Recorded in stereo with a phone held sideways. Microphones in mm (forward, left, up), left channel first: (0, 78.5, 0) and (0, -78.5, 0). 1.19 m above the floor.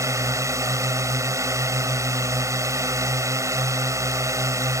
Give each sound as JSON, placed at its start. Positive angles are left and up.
{"t": 0.0, "sound": "a drone", "side_deg": -20}